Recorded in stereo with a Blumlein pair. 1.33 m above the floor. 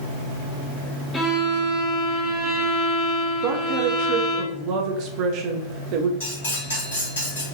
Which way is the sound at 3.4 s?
40° right.